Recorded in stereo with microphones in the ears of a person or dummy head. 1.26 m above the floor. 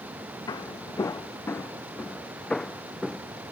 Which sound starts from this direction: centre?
Footsteps, at 0.5 s.